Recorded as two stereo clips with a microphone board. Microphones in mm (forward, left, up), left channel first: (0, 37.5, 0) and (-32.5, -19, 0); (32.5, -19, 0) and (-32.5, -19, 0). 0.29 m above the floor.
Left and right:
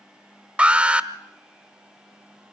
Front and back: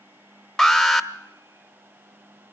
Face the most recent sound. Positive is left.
turn(degrees=-85)